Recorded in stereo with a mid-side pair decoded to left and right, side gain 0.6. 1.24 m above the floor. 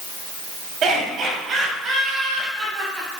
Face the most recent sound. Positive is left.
turn(degrees=-15)